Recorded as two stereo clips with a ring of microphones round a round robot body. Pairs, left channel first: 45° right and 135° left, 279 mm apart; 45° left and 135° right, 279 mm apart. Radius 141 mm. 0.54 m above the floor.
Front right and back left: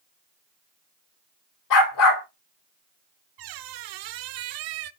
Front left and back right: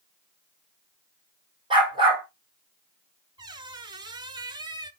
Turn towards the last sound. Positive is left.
turn(degrees=150)